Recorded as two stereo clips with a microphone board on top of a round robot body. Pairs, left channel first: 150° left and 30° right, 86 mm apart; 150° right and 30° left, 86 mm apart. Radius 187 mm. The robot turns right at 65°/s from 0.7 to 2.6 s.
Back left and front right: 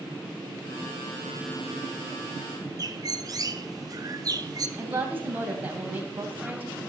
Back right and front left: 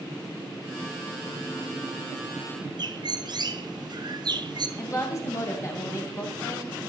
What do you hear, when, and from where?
2.8 s a bird: 5° left, 1.1 m
4.8 s a woman speaking: 95° right, 3 m